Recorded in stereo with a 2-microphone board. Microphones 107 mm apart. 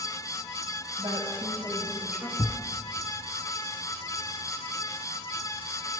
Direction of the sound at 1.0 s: 60° right (ahead or behind).